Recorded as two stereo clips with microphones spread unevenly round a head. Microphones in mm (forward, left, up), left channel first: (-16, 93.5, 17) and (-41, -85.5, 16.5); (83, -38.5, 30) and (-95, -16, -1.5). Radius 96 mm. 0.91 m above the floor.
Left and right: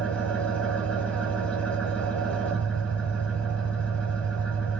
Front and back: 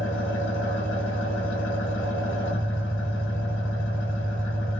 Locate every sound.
0.0 s an engine running: straight ahead, 1.0 m